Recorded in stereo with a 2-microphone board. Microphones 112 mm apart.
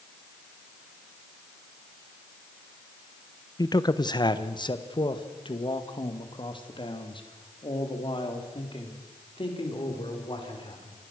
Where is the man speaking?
35° left (ahead or behind), 1.0 m; by 11.0 s 45° left (ahead or behind), 5 m.